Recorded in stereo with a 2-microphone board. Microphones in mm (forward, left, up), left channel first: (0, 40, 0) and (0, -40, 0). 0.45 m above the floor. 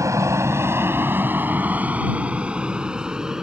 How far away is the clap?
No clap in this recording.